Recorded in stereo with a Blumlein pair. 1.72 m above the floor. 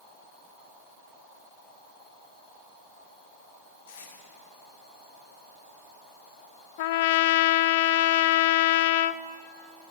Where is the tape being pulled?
70° left, 6 m.